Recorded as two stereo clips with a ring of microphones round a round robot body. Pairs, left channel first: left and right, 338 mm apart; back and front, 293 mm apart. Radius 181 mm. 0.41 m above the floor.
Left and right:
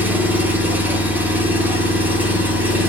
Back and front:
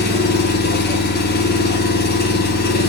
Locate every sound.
0.0 s an engine running: 170° right, 1.1 m